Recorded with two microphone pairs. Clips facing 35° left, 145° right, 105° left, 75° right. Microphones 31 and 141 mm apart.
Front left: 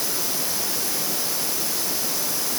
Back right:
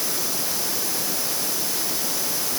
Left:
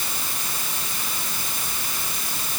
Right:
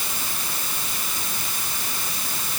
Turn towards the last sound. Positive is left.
No sound to turn to.